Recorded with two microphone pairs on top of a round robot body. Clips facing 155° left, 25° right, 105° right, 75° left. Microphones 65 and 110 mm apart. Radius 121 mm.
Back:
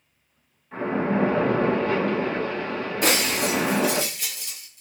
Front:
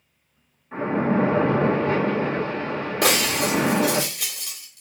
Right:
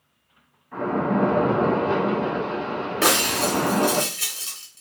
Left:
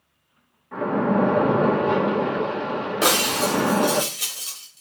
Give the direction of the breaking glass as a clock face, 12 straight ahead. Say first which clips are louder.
Front 2 dB, even; 12 o'clock.